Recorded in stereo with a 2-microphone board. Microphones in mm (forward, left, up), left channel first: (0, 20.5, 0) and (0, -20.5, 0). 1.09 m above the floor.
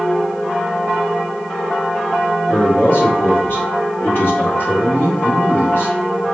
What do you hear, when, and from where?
2.5 s a man speaking: 65° left (ahead or behind), 1.9 m